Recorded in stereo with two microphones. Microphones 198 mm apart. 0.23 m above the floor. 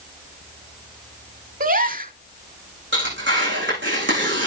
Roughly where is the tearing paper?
Right.